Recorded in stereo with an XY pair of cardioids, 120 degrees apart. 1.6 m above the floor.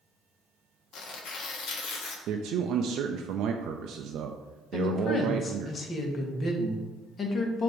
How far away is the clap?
I don't hear a clap.